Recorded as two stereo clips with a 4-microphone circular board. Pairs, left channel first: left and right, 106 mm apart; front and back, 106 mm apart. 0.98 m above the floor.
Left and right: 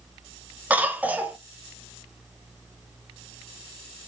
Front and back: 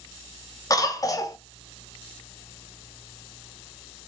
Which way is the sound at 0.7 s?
25° right.